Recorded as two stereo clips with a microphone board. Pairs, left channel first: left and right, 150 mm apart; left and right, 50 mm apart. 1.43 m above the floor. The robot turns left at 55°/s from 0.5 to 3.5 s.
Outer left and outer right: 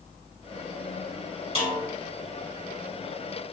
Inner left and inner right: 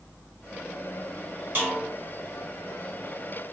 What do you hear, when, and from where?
1.6 s a snare drum: 45° right (ahead or behind), 1.8 m; by 1.8 s 50° right (ahead or behind), 1.8 m